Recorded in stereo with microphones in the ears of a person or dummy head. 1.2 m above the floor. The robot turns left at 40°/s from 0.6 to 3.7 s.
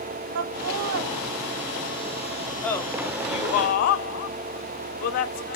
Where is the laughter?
70° right (ahead or behind), 0.5 m; by 5.6 s 50° left (ahead or behind), 0.5 m.